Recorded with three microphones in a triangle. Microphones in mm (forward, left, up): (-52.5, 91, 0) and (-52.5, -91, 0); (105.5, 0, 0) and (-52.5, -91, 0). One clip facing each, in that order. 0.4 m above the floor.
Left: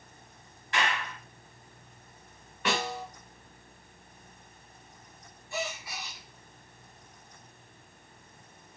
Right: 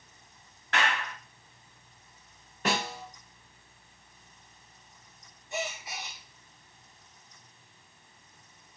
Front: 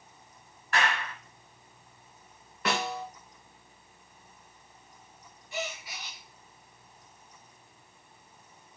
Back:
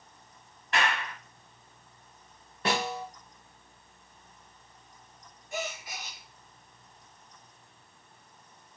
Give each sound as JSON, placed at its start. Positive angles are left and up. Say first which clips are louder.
{"t": 0.7, "sound": "a clap", "louder": "right 1 dB, even", "azimuth_deg": -80, "distance_m": 1.7}
{"t": 2.6, "sound": "a snare drum", "louder": "even, back 1 dB", "azimuth_deg": -105, "distance_m": 1.3}
{"t": 5.5, "sound": "a gasp", "louder": "even, back 1 dB", "azimuth_deg": -155, "distance_m": 0.7}